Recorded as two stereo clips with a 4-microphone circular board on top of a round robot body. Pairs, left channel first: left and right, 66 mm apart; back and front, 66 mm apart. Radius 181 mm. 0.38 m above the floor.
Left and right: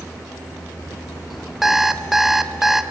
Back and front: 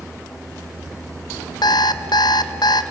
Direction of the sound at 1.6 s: 175° right.